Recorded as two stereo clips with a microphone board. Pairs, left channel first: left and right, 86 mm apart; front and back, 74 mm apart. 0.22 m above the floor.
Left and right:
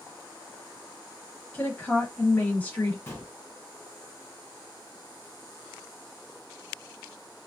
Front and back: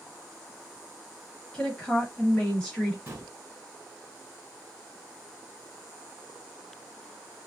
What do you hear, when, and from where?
1.5 s a woman speaking: 60° left, 1.0 m
3.1 s a gunshot: 135° left, 2.0 m